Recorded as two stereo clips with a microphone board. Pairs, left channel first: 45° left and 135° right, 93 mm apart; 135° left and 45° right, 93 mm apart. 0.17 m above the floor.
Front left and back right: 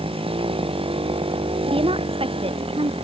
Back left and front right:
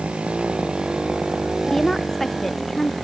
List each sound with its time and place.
0.0 s a motorcycle: 125° right; by 3.0 s 135° right
1.7 s a woman speaking: 140° right